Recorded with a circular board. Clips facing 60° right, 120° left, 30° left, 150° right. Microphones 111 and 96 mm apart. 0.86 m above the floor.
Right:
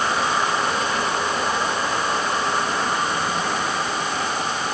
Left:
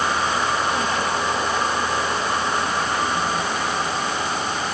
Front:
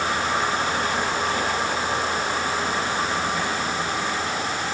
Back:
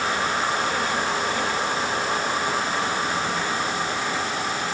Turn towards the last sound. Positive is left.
No sound to turn to.